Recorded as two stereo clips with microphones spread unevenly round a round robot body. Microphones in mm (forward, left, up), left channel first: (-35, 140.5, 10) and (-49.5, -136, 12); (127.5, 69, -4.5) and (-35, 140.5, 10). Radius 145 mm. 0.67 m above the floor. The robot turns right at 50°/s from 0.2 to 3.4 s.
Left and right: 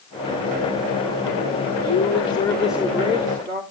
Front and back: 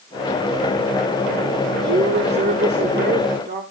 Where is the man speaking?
135° left, 1.8 m; by 3.6 s 145° right, 1.8 m.